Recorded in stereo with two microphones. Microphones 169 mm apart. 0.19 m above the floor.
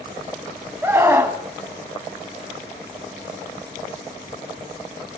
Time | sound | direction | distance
0.8 | a scream | 15° right (ahead or behind) | 1.2 m